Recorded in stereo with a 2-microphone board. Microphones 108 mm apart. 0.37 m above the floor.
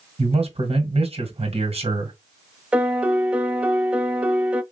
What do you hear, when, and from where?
0.2 s a man speaking: 60° right (ahead or behind), 2 m
2.7 s a piano: 10° right (ahead or behind), 0.5 m